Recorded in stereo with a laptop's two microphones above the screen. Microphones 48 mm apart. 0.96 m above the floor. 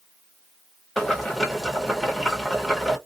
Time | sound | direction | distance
1.0 | boiling | 5° left (ahead or behind) | 0.9 m